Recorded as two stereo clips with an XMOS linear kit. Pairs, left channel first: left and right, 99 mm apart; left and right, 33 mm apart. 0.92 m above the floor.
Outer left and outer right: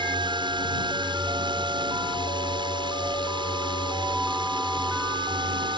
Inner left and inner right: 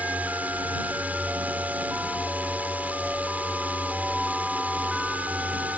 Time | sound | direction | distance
0.0 | a drone | 50° right (ahead or behind) | ?